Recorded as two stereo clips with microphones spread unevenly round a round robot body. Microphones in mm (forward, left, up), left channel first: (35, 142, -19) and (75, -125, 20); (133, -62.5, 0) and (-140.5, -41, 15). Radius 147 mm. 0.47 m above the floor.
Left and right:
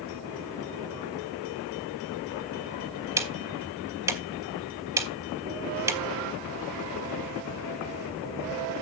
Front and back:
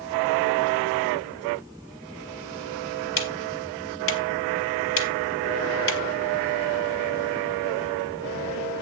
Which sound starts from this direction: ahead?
Ticking, at 3.2 s.